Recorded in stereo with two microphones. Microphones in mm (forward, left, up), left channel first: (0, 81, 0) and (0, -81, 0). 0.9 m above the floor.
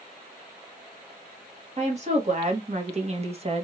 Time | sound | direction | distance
1.8 | a woman speaking | 45° right (ahead or behind) | 1.9 m